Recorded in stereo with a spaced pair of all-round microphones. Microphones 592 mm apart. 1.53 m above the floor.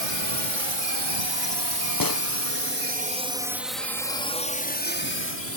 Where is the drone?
65° right (ahead or behind); by 5.6 s 25° left (ahead or behind).